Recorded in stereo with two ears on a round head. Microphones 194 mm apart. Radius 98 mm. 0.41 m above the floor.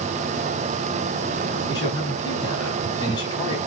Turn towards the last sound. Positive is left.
turn(degrees=20)  # may be behind; listen again after turning